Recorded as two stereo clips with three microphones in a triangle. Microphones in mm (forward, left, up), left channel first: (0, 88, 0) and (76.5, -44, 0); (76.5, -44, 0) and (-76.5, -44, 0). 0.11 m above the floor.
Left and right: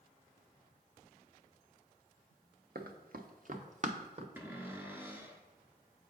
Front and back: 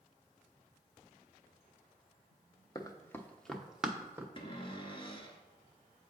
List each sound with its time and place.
2.8 s running footsteps: 65° right, 1.0 m; by 4.3 s 105° right, 1.3 m
4.4 s a cupboard door: 5° left, 0.9 m